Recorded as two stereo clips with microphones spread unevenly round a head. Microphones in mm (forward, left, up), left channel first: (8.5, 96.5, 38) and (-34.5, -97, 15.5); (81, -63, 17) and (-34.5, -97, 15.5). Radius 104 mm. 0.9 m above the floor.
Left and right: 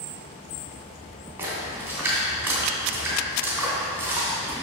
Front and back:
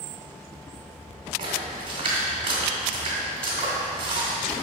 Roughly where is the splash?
Behind.